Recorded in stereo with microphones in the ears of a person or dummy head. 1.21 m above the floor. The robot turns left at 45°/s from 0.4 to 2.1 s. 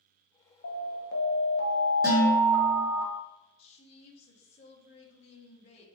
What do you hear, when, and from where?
0.6 s an alarm: 85° left, 1.0 m; by 3.0 s 20° left, 1.0 m
2.0 s dishes clattering: 15° right (ahead or behind), 1.4 m
3.6 s a woman speaking: 35° left (ahead or behind), 1.1 m